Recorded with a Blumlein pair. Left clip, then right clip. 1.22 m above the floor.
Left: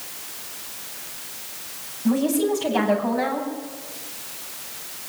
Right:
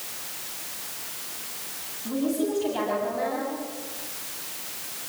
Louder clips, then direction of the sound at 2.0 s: Left 5 dB; 65° left.